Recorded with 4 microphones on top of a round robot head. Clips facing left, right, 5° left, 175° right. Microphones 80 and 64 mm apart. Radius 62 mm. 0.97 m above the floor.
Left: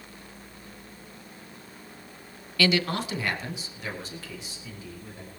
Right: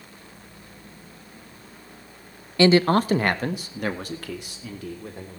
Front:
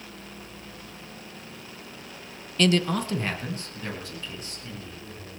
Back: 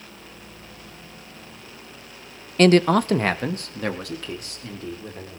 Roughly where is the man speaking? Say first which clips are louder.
Right 8 dB, back 8 dB; behind right.